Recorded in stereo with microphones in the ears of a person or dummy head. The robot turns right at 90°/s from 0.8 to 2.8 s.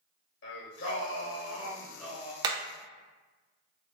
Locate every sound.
0.4 s singing: 65° left, 1.3 m; by 2.3 s 155° right, 1.3 m
2.4 s hammering: 25° right (ahead or behind), 0.5 m; by 2.6 s 10° right (ahead or behind), 0.5 m